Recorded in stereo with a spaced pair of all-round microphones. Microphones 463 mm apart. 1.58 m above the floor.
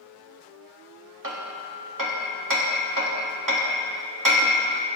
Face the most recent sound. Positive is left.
turn(degrees=-40)  # may be behind; listen again after turning